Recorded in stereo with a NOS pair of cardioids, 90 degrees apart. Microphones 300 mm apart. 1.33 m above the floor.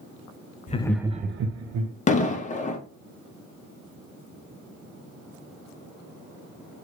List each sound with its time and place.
0.7 s laughter: 25° left, 0.7 m; by 1.9 s 70° right, 1.1 m
2.1 s an explosion: 25° left, 0.8 m